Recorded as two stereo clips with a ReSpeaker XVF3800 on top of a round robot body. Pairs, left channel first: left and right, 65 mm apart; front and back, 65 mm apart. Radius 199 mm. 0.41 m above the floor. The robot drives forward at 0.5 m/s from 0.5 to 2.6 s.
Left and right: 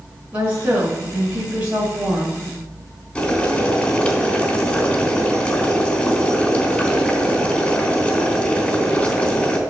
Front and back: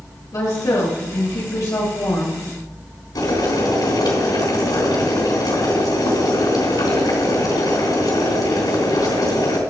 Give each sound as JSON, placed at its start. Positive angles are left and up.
{"t": 0.3, "sound": "a woman speaking", "azimuth_deg": -20, "distance_m": 3.0}
{"t": 3.1, "sound": "boiling", "azimuth_deg": 15, "distance_m": 3.5}